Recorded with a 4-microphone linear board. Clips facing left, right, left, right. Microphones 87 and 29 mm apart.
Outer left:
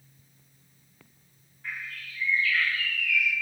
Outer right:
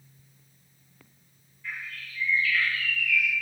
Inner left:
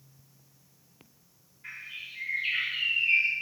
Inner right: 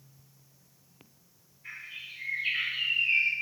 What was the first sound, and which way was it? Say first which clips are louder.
A bird: even, inner left 1 dB; 50° left (ahead or behind).